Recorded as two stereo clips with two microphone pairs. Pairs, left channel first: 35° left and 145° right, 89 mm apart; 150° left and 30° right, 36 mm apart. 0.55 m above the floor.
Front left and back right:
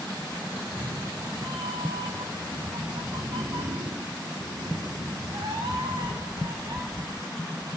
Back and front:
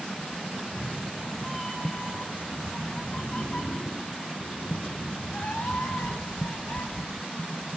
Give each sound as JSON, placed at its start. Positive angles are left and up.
{"t": 0.5, "sound": "a cat meowing", "azimuth_deg": -125, "distance_m": 3.5}